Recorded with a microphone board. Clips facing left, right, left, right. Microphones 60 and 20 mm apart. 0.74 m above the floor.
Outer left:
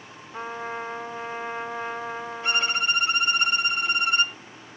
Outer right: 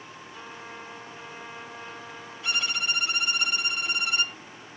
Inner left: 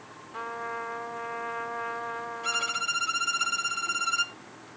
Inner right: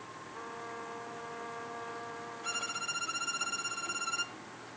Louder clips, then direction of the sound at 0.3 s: Outer left 11 dB, inner left 10 dB; 45° left (ahead or behind).